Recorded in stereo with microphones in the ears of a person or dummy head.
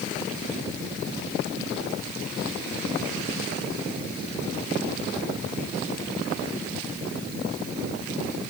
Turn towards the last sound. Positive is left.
No sound to turn to.